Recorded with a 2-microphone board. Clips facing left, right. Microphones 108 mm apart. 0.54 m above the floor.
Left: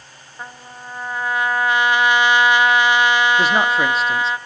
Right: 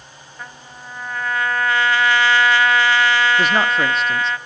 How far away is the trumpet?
About 0.9 m.